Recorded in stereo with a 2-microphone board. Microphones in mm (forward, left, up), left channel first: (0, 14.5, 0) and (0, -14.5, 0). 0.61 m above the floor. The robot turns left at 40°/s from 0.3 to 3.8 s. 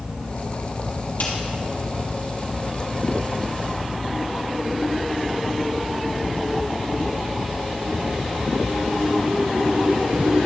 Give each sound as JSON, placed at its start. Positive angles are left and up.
{"t": 1.2, "sound": "a snare drum", "side_deg": 70, "distance_m": 3.0}